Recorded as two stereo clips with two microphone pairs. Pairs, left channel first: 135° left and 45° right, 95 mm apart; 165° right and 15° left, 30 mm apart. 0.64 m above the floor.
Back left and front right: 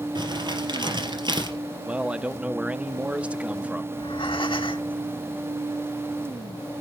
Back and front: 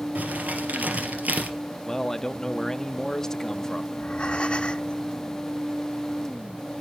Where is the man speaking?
120° right, 0.5 m.